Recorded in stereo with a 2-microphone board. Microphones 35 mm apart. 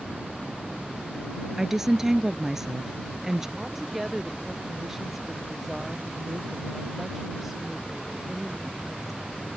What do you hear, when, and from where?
1.6 s a woman speaking: 10° right (ahead or behind)
3.6 s a woman speaking: 10° right (ahead or behind)